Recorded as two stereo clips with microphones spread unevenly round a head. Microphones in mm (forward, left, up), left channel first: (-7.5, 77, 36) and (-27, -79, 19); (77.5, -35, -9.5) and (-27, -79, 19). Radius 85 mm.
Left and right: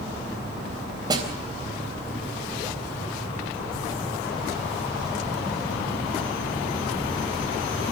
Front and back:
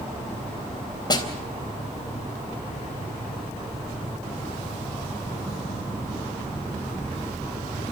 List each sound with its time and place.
1.1 s a snare drum: 30° right, 3.5 m